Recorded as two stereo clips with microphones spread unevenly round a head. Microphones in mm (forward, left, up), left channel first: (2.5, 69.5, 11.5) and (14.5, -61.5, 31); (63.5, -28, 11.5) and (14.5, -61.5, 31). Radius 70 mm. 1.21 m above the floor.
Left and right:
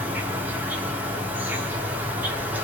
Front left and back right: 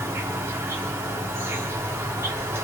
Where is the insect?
160° right, 0.8 m.